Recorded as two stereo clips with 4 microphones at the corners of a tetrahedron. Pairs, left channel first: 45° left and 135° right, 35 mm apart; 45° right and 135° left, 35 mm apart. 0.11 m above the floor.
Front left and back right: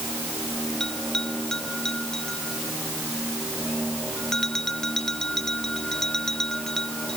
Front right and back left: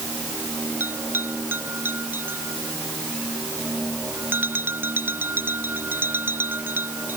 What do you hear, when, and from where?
0.8 s a bell: 120° left